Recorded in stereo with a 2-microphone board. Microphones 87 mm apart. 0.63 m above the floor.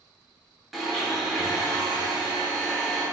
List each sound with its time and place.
0.7 s a blender: centre (ahead or behind), 0.8 m